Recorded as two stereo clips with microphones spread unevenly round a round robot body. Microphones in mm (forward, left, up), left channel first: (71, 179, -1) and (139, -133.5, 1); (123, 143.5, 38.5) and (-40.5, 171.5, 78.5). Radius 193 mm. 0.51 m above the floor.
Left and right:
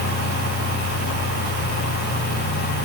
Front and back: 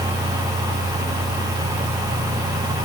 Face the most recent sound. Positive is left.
No sound to turn to.